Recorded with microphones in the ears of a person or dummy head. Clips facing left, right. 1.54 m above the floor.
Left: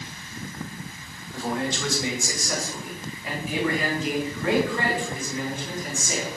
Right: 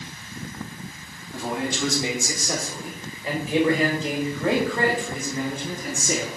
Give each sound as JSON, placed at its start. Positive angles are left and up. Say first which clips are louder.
{"t": 1.3, "sound": "a man speaking", "louder": "even", "side_deg": -15, "distance_m": 3.0}